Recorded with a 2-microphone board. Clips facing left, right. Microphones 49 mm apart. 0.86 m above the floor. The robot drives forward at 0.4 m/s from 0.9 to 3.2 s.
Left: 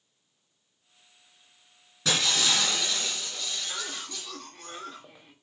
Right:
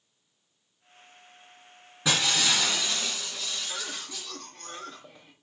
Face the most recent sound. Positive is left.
turn(degrees=5)  # may be behind; listen again after turning